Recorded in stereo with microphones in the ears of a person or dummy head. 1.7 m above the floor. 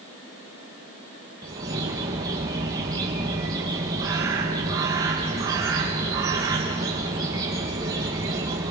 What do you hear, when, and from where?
1.4 s a bird: 15° right (ahead or behind), 0.9 m